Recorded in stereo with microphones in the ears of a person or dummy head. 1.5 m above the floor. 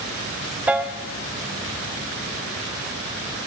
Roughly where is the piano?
Centre.